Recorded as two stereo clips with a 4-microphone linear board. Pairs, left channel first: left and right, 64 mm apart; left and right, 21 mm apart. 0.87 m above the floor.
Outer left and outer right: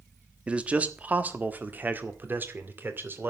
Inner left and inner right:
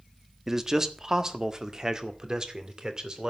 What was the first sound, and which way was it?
A man speaking, 20° right (ahead or behind).